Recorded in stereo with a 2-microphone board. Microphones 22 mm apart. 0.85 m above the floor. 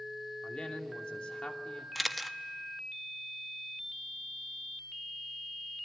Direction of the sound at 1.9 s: 5° right (ahead or behind).